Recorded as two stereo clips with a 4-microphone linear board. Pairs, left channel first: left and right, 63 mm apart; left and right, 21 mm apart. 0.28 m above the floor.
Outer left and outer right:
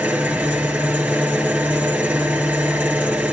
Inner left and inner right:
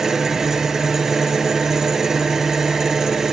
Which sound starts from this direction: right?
An engine running, at 0.0 s.